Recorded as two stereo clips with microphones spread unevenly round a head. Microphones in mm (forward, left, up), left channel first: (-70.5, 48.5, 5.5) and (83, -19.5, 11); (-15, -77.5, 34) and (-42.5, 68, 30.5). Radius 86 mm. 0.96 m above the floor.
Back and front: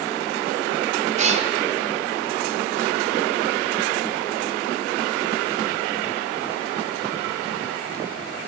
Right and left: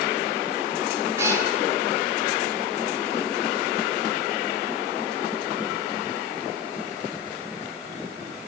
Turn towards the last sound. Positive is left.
turn(degrees=25)